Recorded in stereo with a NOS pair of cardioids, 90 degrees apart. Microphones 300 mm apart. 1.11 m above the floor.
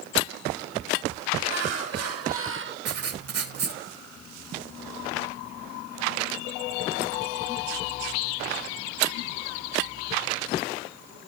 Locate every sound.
1.4 s laughter: 65° right, 1.9 m; by 2.8 s 40° right, 1.0 m
2.9 s writing: 55° right, 1.4 m